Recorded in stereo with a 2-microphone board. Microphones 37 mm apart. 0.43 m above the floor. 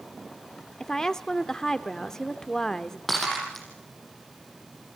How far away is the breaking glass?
About 8 m.